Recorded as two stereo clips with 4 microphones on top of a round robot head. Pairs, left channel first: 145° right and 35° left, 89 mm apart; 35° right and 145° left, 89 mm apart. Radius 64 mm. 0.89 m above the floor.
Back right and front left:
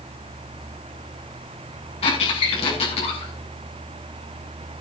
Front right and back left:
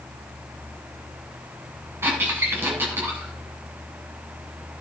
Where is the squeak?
150° right, 7.5 m.